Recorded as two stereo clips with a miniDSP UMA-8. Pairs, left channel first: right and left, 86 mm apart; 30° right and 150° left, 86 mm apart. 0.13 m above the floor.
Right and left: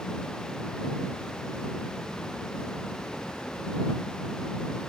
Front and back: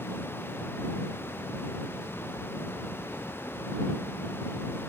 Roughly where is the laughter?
I don't hear laughter.